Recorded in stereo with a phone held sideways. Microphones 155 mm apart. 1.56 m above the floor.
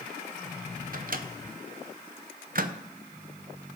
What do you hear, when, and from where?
0.9 s a microwave: 60° right (ahead or behind), 0.6 m